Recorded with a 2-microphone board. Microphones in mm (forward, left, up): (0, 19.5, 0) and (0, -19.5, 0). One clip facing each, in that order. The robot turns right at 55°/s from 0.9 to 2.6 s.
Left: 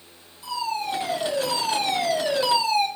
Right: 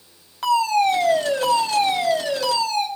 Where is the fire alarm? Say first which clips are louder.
Right 10 dB; 75° right, 7 m; by 2.9 s 20° left, 7 m.